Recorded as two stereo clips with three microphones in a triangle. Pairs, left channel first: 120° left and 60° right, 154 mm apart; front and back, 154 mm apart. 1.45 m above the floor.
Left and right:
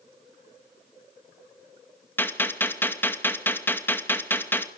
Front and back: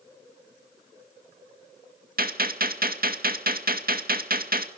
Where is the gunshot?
165° right, 2 m.